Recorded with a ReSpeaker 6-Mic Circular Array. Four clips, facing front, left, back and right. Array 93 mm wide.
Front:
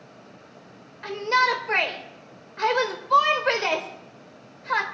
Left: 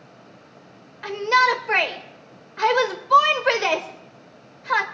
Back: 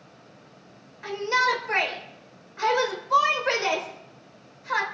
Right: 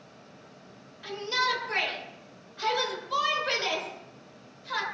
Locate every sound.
1.0 s a shout: 75° left, 2.0 m